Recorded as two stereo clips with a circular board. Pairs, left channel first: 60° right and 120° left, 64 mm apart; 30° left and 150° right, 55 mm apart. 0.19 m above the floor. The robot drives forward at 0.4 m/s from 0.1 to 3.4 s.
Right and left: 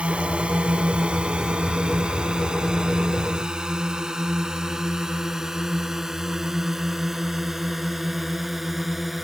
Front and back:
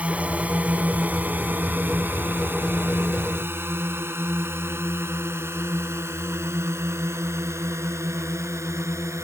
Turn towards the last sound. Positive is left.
turn(degrees=-155)